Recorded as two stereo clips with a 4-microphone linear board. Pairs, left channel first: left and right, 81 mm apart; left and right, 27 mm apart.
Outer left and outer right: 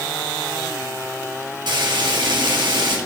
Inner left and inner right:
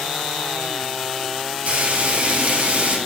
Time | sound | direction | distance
1.7 | frying | 65° right (ahead or behind) | 3.5 m